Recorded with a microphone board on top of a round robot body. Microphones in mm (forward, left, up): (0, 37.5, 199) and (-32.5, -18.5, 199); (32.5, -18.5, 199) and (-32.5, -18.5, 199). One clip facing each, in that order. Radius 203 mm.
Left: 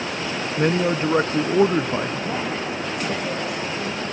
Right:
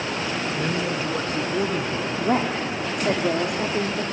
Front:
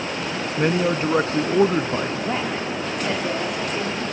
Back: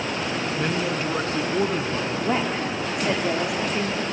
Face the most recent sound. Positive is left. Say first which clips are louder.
# right 3 dB, back 1 dB
turn(degrees=-95)